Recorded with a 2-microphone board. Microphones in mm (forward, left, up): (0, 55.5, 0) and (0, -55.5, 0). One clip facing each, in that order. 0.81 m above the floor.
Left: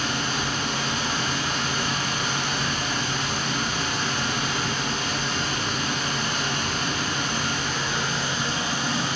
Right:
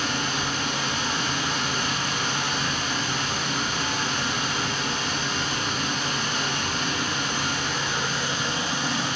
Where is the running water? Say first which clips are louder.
Even; centre (ahead or behind), 1.7 m.